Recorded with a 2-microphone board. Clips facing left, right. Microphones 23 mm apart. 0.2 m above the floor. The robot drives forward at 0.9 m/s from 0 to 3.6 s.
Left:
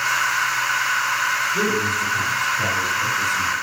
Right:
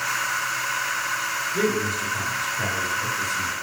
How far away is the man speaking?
About 2 m.